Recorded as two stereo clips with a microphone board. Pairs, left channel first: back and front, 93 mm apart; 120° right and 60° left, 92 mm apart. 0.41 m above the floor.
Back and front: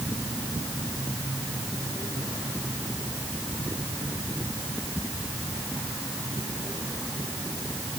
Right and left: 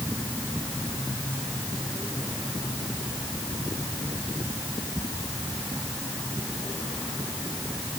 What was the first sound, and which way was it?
Only background noise.